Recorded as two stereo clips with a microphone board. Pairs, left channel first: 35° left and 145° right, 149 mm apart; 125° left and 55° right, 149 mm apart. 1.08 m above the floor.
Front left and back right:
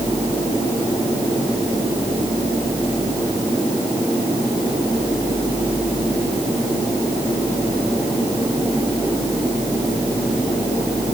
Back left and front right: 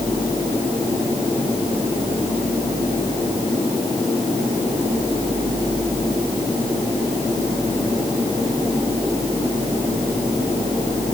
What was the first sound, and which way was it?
Only background noise.